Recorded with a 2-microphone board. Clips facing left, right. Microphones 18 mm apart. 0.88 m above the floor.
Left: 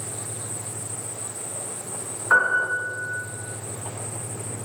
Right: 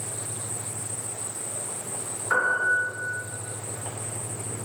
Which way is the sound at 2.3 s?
25° left (ahead or behind).